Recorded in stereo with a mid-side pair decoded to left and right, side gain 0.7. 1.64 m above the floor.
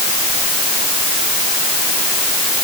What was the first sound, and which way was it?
Only background noise.